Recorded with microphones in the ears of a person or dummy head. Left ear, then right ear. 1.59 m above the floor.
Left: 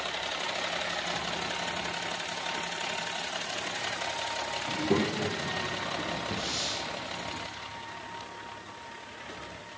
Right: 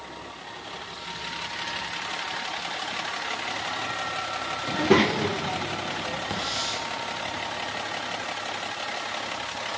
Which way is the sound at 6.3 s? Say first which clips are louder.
Right 5 dB; 35° right (ahead or behind).